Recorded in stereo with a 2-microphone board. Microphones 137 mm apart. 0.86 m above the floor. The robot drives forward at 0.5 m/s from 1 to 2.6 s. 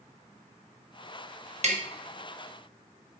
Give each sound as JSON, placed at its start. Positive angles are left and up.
{"t": 1.6, "sound": "tapping", "side_deg": -55, "distance_m": 1.4}